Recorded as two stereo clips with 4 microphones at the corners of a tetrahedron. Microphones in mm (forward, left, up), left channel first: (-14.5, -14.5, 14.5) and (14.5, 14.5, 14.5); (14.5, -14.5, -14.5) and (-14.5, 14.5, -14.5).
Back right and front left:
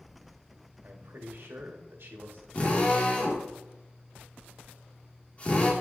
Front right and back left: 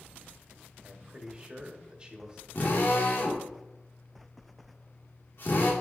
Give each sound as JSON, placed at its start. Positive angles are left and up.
{"t": 0.8, "sound": "a man speaking", "azimuth_deg": 70, "distance_m": 1.6}
{"t": 2.5, "sound": "a drill", "azimuth_deg": -75, "distance_m": 2.0}